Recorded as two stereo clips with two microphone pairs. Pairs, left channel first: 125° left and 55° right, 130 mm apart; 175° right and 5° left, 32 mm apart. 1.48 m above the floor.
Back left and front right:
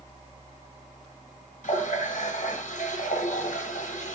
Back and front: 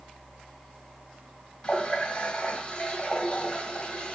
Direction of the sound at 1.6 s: 125° left.